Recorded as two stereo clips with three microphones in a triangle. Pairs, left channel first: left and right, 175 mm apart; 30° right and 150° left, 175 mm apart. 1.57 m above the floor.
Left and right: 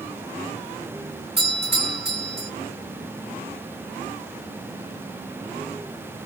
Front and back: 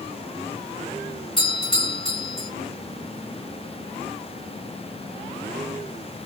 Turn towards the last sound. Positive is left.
turn(degrees=-90)